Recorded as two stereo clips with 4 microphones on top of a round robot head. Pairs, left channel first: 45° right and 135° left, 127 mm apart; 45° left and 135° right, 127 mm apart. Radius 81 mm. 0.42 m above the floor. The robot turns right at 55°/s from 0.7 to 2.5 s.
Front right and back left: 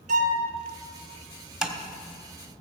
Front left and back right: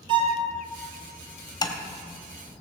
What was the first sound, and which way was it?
A violin, 170° left.